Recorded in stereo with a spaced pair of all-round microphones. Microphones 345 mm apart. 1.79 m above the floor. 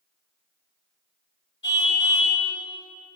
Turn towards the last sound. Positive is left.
turn(degrees=35)  # may be behind; listen again after turning